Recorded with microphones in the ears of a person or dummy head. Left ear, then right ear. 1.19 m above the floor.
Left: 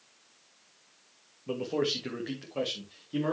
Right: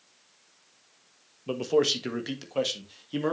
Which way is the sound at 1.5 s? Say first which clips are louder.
Right 6 dB; 75° right (ahead or behind).